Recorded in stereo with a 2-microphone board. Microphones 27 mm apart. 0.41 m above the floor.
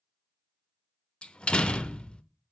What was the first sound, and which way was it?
A door slam, 40° left (ahead or behind).